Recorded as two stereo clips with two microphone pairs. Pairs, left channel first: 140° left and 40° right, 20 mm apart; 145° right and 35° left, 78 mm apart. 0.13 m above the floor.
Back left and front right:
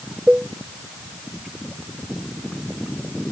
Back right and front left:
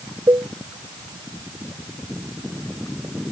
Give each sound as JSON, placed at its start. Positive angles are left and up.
{"t": 0.3, "sound": "a cowbell", "azimuth_deg": -5}